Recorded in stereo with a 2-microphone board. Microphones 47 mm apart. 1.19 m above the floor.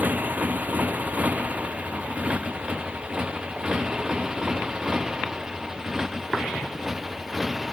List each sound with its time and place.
0.0 s a motorcycle: 40° right (ahead or behind); by 7.7 s 10° right (ahead or behind)